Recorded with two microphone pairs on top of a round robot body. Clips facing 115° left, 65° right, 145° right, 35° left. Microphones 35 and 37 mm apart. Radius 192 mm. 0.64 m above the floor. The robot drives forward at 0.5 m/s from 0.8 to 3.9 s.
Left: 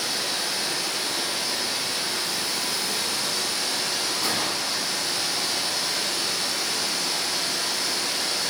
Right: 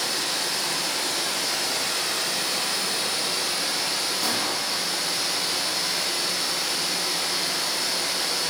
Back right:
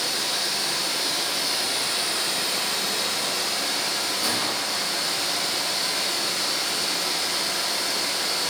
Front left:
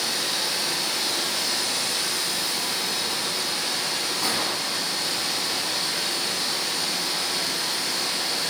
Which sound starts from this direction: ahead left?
A gunshot, at 4.2 s.